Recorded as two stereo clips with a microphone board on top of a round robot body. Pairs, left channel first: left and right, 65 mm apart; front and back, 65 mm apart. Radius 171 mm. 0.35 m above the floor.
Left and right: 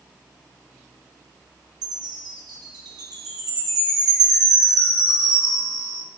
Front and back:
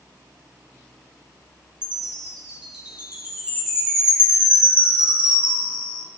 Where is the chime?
105° right, 1.5 m.